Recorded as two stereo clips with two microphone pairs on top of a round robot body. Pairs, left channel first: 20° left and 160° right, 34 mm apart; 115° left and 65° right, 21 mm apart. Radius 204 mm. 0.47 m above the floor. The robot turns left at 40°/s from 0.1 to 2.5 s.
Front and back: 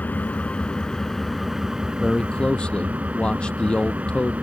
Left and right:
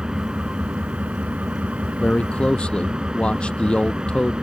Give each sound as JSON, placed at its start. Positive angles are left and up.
{"t": 0.0, "sound": "an engine running", "azimuth_deg": -20}
{"t": 2.0, "sound": "a man speaking", "azimuth_deg": 100}